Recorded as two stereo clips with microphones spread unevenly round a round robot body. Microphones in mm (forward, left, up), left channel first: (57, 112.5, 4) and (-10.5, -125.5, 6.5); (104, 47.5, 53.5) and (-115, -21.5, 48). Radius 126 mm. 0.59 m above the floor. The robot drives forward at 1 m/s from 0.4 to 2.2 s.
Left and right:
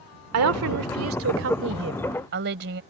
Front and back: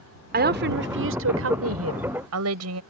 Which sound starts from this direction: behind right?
A woman speaking, at 0.3 s.